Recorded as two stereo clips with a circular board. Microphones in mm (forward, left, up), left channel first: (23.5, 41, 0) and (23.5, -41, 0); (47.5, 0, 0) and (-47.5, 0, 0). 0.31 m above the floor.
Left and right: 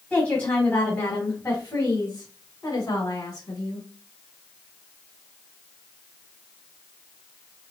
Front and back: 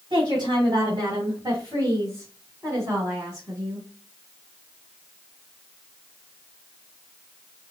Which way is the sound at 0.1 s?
165° left.